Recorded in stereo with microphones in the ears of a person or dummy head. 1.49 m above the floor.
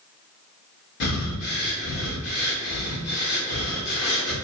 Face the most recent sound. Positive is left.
turn(degrees=50)  # may be behind; listen again after turning